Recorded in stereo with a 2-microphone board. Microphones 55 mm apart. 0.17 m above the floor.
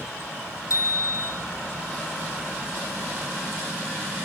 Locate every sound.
0.7 s a bicycle bell: 65° left (ahead or behind), 4 m